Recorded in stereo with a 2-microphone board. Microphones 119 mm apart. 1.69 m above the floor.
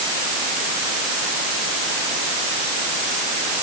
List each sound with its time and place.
Only background noise.